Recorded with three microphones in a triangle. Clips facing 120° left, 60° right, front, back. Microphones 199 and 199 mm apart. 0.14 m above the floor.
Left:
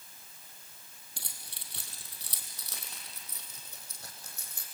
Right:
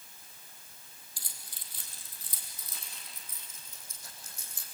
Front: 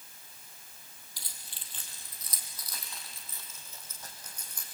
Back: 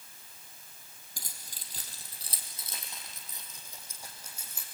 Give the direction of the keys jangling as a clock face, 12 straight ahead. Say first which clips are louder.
Left 5 dB, back 4 dB; 7 o'clock.